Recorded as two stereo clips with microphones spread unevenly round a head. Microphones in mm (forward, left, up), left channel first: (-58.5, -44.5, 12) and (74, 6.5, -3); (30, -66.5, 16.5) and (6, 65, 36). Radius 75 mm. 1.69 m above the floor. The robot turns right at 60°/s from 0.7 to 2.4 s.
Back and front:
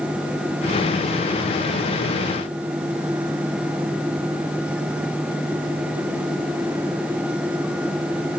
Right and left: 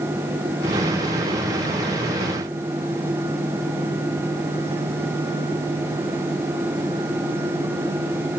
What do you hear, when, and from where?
Only background noise.